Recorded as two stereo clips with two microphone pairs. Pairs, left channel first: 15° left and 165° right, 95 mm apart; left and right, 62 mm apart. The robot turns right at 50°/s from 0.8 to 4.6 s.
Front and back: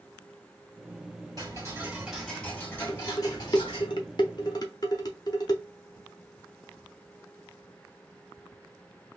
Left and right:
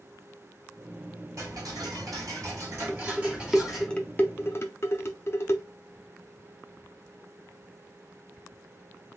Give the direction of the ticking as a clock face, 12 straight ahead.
4 o'clock.